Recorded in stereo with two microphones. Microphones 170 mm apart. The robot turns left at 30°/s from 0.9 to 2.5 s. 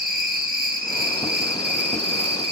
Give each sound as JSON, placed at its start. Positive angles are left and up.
{"t": 0.0, "sound": "an insect", "azimuth_deg": -60, "distance_m": 2.5}